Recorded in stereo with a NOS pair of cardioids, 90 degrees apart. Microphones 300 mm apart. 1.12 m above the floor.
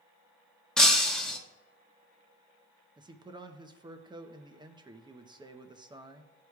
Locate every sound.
0.8 s breaking glass: straight ahead, 1.3 m
3.0 s a man speaking: 15° right, 0.8 m